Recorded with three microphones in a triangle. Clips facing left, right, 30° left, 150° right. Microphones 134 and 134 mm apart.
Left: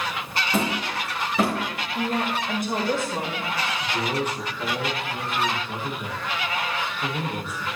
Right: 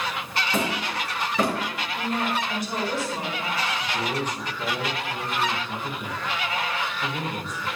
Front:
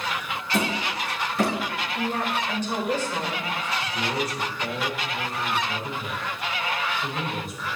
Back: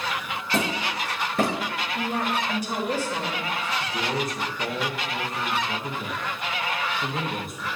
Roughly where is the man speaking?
Behind.